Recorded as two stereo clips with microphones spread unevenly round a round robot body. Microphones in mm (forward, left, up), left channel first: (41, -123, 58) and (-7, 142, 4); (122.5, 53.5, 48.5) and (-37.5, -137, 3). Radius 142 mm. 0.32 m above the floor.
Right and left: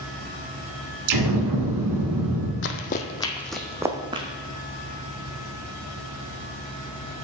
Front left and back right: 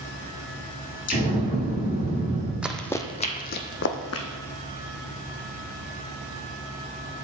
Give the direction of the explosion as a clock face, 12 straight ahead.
8 o'clock.